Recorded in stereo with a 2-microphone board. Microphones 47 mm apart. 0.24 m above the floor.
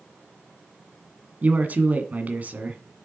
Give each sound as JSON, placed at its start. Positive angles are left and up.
{"t": 1.4, "sound": "a man speaking", "side_deg": -35, "distance_m": 1.9}